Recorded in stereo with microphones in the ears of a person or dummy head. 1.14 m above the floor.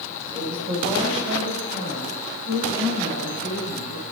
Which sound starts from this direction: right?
A woman speaking, at 0.3 s.